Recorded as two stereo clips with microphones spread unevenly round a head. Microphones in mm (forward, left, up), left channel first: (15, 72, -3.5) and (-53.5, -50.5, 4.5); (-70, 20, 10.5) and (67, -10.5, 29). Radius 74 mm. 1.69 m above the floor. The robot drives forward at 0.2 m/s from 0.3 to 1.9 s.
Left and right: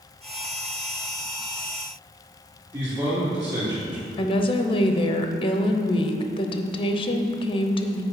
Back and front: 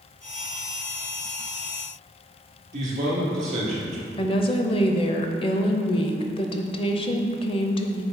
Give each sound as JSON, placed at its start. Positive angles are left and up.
{"t": 2.7, "sound": "a man speaking", "azimuth_deg": -55, "distance_m": 2.5}
{"t": 4.2, "sound": "a woman speaking", "azimuth_deg": 110, "distance_m": 0.6}